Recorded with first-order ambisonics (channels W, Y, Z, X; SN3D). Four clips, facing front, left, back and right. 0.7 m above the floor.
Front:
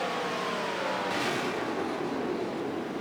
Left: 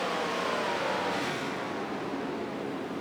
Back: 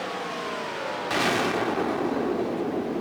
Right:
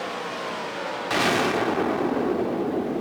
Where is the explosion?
115° right, 1.0 m.